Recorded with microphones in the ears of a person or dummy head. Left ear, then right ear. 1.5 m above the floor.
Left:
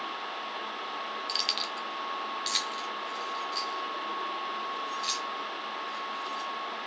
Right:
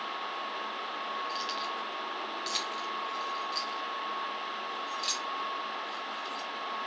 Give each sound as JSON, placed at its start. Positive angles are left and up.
{"t": 1.3, "sound": "keys jangling", "side_deg": 25, "distance_m": 1.1}